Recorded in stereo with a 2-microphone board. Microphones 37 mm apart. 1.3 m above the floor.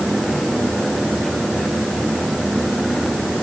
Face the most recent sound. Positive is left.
No sound to turn to.